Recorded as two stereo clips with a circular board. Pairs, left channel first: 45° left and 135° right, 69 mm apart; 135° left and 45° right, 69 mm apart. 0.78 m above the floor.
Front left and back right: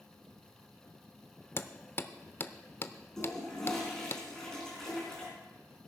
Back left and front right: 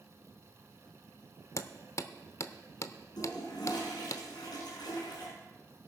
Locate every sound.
1.6 s hammering: 100° left, 0.7 m
3.2 s a toilet flushing: 130° left, 4.5 m